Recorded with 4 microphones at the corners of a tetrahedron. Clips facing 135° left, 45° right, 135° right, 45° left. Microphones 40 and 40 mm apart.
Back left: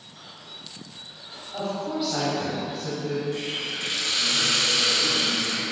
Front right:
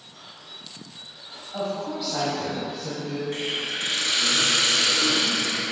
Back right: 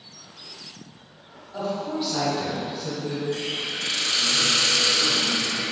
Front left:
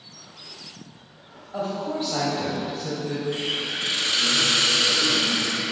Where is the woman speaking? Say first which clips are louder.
Even, even; 40° left, 1.5 m; by 3.2 s 85° left, 1.9 m.